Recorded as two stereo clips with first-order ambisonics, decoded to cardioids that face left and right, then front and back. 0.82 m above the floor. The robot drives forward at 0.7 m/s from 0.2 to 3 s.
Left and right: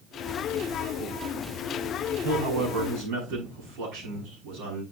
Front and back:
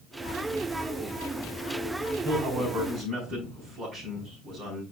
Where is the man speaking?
110° right, 7 m; by 4.8 s 115° right, 7 m.